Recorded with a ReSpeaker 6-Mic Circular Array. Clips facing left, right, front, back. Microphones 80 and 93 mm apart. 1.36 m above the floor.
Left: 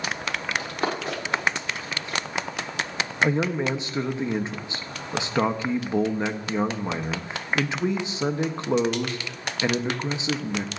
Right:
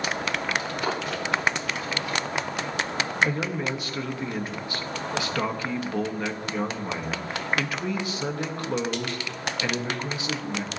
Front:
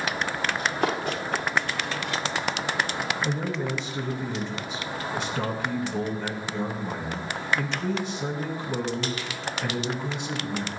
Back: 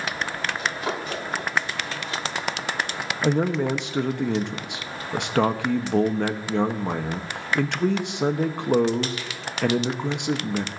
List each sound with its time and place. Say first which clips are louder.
0.6 s running footsteps: even, front 4 dB; 40° left, 7 m; by 2.2 s 30° left, 8 m
3.2 s a man speaking: left 7 dB, back 7 dB; 155° left, 1.0 m